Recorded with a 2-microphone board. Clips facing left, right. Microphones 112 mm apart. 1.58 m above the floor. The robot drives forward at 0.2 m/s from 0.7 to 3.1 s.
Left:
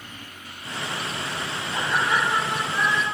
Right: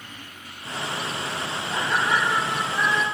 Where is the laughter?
70° right (ahead or behind), 1.4 m; by 3.0 s 75° right (ahead or behind), 1.4 m.